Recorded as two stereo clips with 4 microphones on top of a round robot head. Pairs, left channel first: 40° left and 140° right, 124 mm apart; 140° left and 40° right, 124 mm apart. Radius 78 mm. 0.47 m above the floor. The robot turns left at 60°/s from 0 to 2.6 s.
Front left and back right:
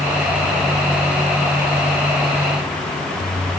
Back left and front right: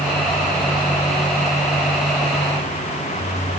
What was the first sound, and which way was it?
Only background noise.